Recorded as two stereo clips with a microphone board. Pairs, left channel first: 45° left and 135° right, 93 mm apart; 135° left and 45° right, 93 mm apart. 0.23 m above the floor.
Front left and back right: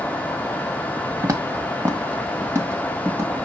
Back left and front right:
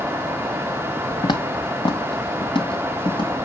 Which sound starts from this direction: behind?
Footsteps, at 1.2 s.